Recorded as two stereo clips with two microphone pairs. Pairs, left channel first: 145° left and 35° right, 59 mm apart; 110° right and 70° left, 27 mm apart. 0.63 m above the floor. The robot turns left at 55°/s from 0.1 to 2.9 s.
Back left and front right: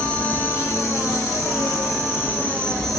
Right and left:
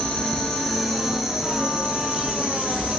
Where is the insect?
145° right, 3 m; by 3.0 s 60° left, 3 m.